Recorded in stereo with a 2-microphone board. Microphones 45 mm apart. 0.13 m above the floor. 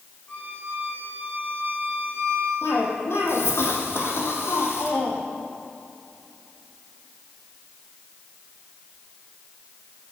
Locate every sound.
0.3 s a violin: 35° left (ahead or behind), 5 m
2.6 s a cough: 70° left (ahead or behind), 4.5 m